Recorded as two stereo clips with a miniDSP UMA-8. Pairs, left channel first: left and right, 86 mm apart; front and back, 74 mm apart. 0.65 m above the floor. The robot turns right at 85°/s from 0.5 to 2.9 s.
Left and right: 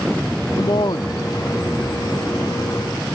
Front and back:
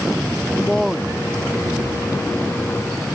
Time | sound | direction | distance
0.6 | a man speaking | 70° left | ?